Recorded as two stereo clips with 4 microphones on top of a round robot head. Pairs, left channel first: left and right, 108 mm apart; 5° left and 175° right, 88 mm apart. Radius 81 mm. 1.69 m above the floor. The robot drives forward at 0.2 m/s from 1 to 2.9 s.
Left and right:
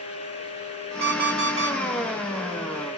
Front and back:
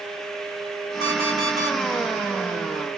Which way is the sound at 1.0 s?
155° right.